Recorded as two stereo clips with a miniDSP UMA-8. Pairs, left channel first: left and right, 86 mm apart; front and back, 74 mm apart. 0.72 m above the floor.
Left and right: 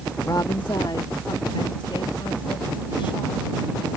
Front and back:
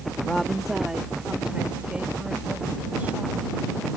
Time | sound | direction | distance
0.2 | a woman speaking | 75° left | ?